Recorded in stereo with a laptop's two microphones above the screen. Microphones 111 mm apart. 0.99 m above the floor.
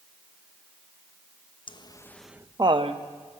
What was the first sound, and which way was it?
Laughter, 45° left (ahead or behind).